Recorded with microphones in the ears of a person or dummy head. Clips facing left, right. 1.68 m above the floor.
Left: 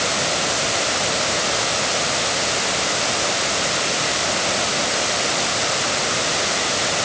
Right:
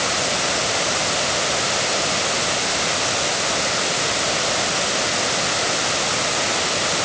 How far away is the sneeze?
I don't hear a sneeze.